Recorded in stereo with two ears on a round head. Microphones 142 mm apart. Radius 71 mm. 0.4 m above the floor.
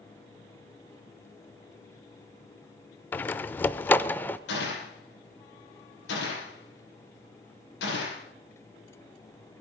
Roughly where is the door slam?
Centre.